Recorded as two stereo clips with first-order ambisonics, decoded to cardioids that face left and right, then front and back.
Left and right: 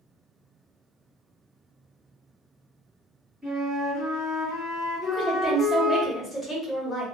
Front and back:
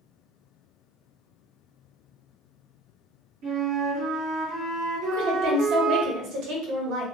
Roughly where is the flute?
Behind.